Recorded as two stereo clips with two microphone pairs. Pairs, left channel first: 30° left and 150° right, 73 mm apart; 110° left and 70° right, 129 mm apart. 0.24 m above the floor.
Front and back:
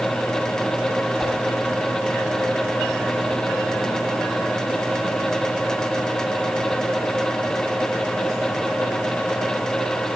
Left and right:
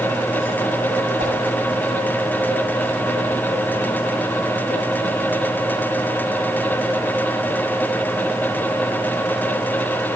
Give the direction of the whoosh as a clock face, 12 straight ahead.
2 o'clock.